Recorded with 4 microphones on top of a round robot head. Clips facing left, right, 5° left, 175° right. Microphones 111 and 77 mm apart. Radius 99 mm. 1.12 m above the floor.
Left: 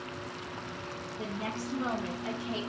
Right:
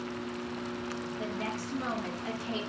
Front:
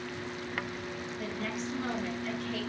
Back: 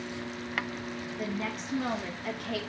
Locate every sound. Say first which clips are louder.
1.2 s a woman speaking: left 2 dB, back 2 dB; 160° left, 3 m; by 2.6 s straight behind, 1.4 m